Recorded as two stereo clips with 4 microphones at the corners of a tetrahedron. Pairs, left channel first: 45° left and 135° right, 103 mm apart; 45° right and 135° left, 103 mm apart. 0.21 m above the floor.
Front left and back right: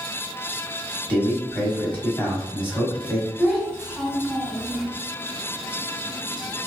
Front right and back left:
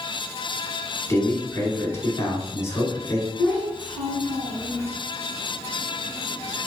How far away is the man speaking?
About 1.2 m.